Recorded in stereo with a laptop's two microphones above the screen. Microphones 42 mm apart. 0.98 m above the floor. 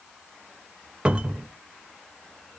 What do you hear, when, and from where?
1.1 s a cupboard door: 25° right (ahead or behind), 0.7 m